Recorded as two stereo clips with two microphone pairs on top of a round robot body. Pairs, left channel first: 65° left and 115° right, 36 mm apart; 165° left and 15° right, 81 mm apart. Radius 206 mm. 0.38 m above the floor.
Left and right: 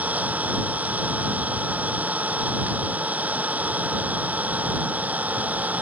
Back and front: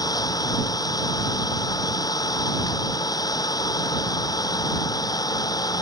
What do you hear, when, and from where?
0.0 s an engine running: 155° right